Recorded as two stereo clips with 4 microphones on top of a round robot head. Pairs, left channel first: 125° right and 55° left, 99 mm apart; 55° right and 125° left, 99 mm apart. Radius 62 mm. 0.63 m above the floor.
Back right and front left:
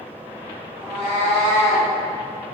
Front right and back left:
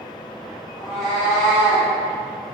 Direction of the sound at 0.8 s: 30° left.